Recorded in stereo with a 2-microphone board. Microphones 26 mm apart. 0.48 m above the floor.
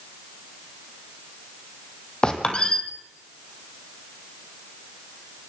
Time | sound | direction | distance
2.2 | a squeak | 35° left (ahead or behind) | 3 m